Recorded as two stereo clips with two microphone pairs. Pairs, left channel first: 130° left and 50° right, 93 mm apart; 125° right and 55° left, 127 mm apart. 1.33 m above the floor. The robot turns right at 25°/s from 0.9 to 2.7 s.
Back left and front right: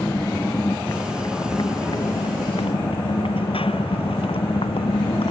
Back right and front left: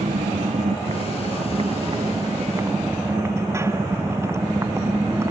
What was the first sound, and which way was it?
A motorcycle, 75° left.